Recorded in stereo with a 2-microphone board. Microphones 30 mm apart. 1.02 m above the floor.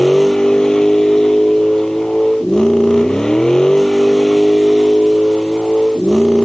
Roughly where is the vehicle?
Centre.